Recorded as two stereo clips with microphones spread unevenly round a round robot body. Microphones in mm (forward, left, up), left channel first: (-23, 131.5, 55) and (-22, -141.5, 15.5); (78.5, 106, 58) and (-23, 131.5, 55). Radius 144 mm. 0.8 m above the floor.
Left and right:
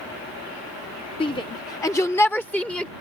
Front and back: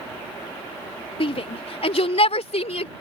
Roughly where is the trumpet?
I don't hear a trumpet.